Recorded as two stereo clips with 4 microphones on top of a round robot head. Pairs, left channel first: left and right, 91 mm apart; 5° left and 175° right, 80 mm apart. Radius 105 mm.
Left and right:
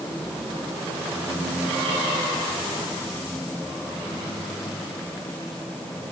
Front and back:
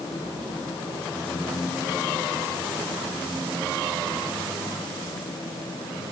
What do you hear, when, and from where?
Only background noise.